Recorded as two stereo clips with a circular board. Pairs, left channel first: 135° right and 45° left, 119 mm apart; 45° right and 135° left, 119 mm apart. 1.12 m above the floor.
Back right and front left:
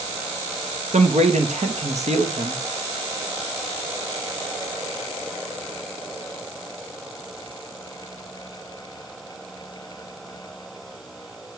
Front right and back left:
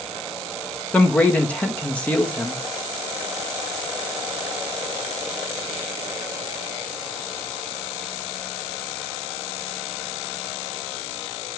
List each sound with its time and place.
0.9 s a man speaking: 35° left, 1.5 m